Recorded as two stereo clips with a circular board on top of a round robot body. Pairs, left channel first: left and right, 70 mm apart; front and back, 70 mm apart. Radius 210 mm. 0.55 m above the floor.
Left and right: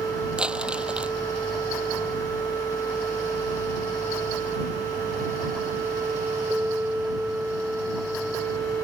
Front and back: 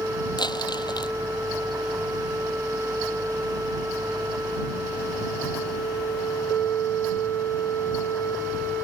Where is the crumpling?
15° right.